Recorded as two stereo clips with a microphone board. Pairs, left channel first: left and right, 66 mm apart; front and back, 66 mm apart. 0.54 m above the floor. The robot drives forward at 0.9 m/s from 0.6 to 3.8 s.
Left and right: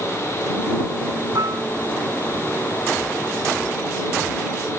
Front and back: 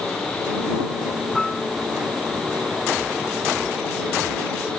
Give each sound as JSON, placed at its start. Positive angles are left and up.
{"t": 1.4, "sound": "dishes clattering", "azimuth_deg": -80}